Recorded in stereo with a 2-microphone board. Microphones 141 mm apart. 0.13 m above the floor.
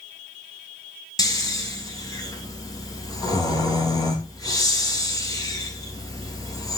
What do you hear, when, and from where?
1.2 s snoring: 25° left (ahead or behind), 1.9 m